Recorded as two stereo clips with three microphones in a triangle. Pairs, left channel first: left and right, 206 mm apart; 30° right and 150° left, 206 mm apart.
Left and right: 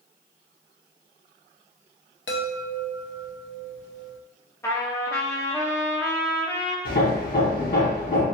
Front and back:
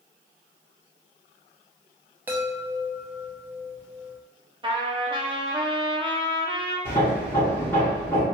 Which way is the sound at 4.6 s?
145° left.